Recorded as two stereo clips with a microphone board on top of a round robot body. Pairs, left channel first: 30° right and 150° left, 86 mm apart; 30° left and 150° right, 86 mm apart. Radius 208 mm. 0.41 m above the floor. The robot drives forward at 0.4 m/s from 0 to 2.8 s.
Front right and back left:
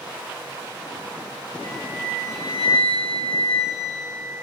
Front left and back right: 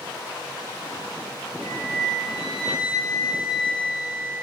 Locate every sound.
1.6 s a flute: 125° left, 4 m; by 4.4 s 130° left, 4.5 m